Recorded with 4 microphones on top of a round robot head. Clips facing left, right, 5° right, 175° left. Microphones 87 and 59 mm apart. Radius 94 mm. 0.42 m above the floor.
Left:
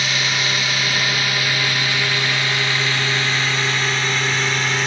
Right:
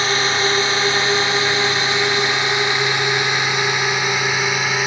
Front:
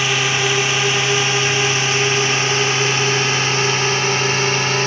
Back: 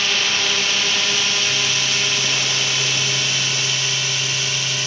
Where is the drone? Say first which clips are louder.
Right 4 dB, front 3 dB; 65° right; by 4.9 s 15° right.